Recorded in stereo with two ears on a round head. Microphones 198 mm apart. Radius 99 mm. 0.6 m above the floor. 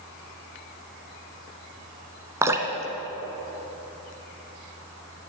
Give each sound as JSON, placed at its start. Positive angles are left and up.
{"t": 2.4, "sound": "dripping", "side_deg": -15, "distance_m": 1.3}